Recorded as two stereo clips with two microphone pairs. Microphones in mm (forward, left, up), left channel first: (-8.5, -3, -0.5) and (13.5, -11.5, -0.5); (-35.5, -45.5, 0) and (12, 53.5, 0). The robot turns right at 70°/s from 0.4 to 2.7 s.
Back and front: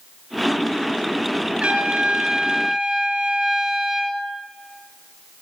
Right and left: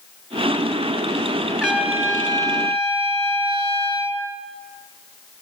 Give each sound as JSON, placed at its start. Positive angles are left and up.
{"t": 1.6, "sound": "a trumpet", "azimuth_deg": -25, "distance_m": 2.0}